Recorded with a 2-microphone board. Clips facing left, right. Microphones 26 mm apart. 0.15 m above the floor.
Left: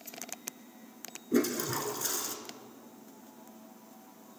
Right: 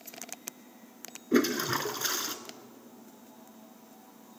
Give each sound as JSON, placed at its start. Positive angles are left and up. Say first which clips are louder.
{"t": 1.3, "sound": "a toilet flushing", "louder": "right 3 dB", "side_deg": -35, "distance_m": 1.7}